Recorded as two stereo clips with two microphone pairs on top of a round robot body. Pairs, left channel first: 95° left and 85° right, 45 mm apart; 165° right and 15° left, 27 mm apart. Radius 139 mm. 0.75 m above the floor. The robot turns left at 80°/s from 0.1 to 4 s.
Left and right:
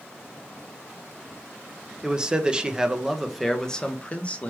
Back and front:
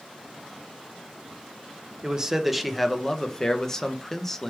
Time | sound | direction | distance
2.0 | a man speaking | 45° right | 0.6 m